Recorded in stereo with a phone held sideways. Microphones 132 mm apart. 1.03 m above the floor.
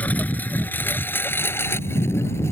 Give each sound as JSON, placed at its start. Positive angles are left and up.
{"t": 0.0, "sound": "a lawn mower", "side_deg": 10}